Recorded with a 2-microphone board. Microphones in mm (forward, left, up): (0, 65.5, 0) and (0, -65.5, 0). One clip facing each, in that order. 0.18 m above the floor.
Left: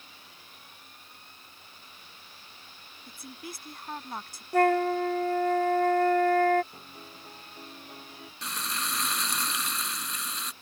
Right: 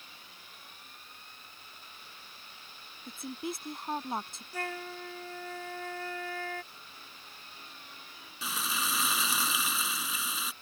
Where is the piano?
45° left (ahead or behind).